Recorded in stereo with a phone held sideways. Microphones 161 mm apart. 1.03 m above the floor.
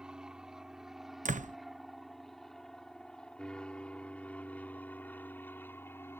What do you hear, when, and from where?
0.0 s an aircraft: 5° right (ahead or behind); by 6.2 s 15° left (ahead or behind)
1.2 s a door slam: 50° right (ahead or behind)